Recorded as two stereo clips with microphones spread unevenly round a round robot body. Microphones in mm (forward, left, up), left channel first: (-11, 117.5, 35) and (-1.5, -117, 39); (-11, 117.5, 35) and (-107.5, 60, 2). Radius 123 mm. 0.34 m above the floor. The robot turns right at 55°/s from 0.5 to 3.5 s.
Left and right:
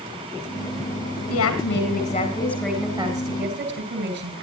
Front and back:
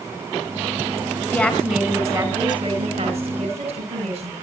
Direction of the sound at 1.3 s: 100° left.